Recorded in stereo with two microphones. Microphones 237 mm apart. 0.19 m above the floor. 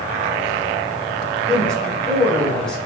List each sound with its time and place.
1.5 s a man speaking: 5° left (ahead or behind), 1.4 m